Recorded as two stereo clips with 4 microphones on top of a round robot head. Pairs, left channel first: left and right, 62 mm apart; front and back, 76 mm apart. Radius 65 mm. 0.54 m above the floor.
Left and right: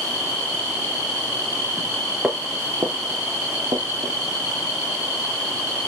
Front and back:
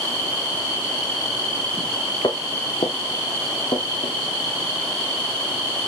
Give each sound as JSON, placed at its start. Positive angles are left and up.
{"t": 2.2, "sound": "footsteps", "azimuth_deg": -10, "distance_m": 0.6}